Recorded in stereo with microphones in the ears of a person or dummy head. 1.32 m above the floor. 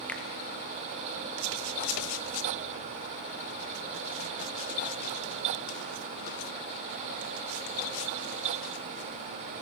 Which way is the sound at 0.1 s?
5° left (ahead or behind).